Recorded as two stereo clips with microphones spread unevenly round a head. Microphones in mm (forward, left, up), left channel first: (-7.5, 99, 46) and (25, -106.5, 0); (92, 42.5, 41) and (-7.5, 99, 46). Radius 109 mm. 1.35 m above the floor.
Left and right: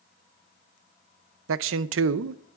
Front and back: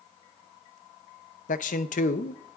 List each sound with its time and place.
1.5 s a man speaking: 50° right, 0.6 m